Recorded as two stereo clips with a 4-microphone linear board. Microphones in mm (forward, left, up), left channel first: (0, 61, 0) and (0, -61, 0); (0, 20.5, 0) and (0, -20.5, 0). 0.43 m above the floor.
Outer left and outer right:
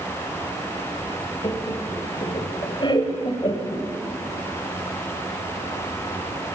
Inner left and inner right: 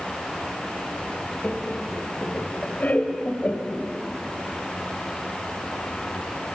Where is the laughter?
40° left (ahead or behind), 1.9 m.